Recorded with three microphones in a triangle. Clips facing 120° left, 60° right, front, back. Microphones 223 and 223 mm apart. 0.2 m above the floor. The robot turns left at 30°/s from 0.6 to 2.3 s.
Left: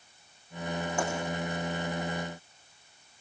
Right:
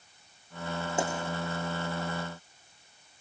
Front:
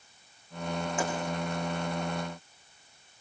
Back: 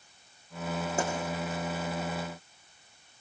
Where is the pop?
130° right, 7 m.